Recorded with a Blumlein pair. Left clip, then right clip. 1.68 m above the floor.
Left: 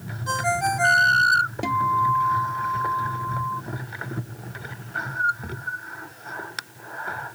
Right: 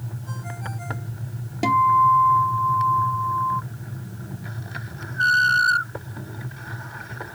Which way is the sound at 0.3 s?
35° left.